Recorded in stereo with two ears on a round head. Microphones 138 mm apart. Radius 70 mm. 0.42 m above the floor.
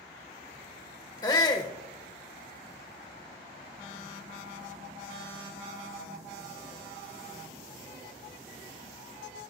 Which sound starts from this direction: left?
A shout, at 1.2 s.